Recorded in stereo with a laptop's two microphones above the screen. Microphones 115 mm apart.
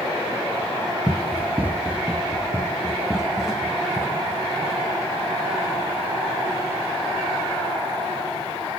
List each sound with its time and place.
1.1 s running footsteps: 20° right (ahead or behind), 1.2 m; by 4.8 s centre (ahead or behind), 3.5 m